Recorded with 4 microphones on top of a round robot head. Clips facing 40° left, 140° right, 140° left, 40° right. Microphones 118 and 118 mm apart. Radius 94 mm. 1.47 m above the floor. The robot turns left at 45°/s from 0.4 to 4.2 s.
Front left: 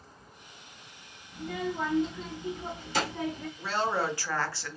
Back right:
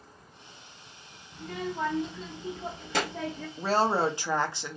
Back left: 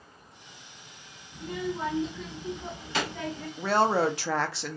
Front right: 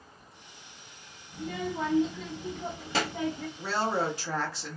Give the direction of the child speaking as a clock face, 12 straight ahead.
1 o'clock.